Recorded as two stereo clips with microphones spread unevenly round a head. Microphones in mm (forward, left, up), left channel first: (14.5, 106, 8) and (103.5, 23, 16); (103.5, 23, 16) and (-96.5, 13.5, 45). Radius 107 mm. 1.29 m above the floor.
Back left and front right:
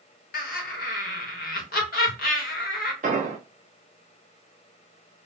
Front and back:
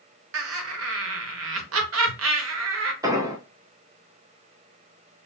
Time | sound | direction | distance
0.3 | laughter | 160° left | 1.2 m
3.0 | an explosion | 105° right | 0.6 m